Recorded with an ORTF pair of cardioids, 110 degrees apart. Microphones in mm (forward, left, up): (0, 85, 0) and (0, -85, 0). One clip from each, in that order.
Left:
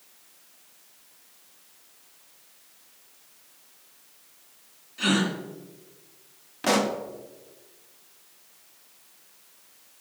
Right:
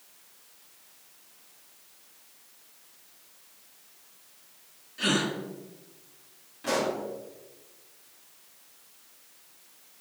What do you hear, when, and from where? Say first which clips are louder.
5.0 s a gasp: left 2 dB; 10° left, 3 m
6.6 s a pop: left 4 dB; 65° left, 1.5 m